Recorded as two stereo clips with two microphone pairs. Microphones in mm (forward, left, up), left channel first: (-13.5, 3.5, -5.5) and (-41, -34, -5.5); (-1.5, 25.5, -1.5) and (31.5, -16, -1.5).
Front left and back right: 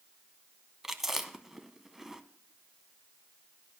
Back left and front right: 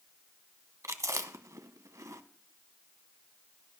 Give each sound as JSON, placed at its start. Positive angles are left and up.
{"t": 0.8, "sound": "chewing", "azimuth_deg": -45, "distance_m": 0.8}